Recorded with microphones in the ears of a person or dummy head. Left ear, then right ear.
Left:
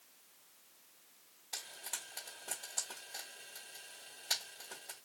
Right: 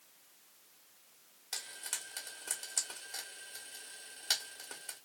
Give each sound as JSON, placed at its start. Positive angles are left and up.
{"t": 1.5, "sound": "frying", "side_deg": -35, "distance_m": 1.3}